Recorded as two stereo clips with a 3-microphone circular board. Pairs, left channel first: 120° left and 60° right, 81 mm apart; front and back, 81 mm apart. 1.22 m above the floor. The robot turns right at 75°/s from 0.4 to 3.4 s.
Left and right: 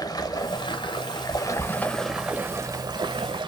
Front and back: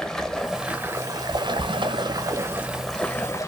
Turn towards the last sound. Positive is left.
turn(degrees=-50)